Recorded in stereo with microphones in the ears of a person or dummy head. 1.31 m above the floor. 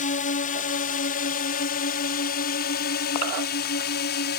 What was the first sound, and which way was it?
A drone, 45° left (ahead or behind).